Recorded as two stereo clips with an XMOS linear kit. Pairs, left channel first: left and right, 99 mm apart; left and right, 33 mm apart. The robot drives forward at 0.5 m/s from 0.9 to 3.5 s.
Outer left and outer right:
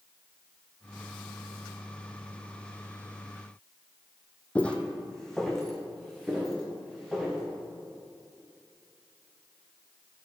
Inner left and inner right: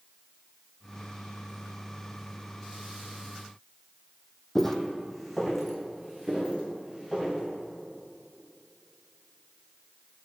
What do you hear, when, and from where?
4.5 s footsteps: 15° left (ahead or behind), 0.6 m; by 7.4 s 5° right (ahead or behind), 2 m